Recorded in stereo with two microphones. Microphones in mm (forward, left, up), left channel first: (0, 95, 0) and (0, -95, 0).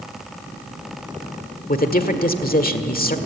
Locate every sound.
1.7 s a man speaking: 45° left (ahead or behind), 1.5 m